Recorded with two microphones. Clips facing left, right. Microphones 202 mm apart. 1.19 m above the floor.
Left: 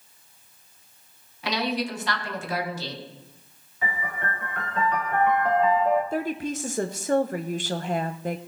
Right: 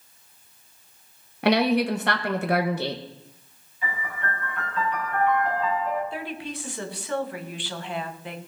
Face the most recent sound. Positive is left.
turn(degrees=45)  # may be behind; listen again after turning